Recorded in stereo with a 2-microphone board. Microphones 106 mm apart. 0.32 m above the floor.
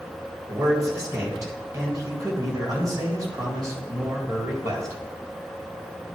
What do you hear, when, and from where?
0.5 s a man speaking: 35° right (ahead or behind), 1.7 m